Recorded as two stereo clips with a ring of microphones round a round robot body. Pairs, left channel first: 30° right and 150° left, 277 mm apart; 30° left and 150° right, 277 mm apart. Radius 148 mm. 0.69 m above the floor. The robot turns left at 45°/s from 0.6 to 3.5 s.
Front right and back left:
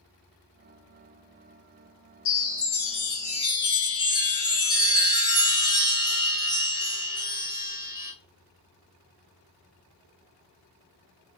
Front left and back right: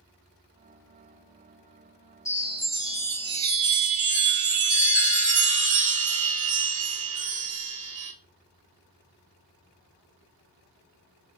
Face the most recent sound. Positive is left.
turn(degrees=-105)